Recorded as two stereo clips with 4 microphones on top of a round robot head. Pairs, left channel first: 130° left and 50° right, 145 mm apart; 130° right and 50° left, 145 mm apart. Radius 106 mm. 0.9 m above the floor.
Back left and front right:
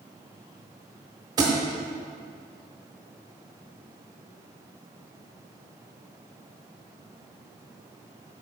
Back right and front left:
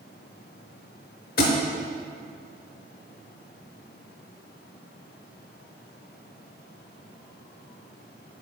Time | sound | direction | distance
1.4 | a thud | 110° right | 0.7 m